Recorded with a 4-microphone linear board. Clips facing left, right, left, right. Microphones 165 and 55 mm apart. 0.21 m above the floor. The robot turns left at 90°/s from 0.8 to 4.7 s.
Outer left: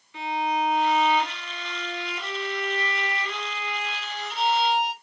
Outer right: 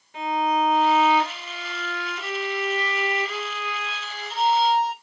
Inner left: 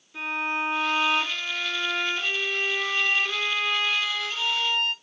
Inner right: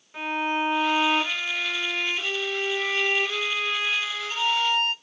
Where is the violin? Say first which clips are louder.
Outer right 3 dB, inner right 2 dB; 100° right, 2 m; by 4.9 s 90° right, 2 m.